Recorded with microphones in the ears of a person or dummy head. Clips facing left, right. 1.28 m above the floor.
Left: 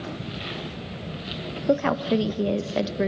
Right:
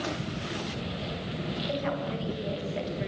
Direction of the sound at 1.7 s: 70° left (ahead or behind).